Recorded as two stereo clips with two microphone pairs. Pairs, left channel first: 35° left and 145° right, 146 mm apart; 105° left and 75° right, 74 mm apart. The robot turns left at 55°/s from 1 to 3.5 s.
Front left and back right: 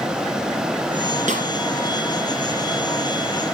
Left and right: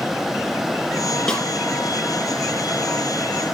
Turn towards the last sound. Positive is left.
turn(degrees=65)